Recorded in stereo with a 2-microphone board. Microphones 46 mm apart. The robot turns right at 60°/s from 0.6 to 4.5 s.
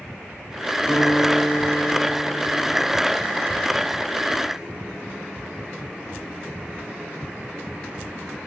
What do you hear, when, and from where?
0.9 s a guitar: 25° left, 1.4 m; by 2.9 s 145° left, 1.4 m